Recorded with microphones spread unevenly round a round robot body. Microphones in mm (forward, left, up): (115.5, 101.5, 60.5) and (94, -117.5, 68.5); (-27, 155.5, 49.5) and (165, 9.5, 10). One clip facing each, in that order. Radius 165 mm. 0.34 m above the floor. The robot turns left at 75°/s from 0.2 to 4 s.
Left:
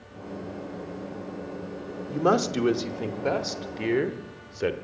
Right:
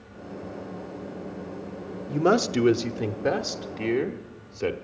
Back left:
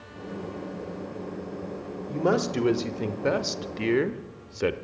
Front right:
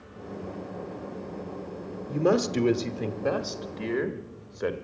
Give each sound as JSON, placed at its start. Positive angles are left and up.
{"t": 2.1, "sound": "a man speaking", "azimuth_deg": -75, "distance_m": 0.9}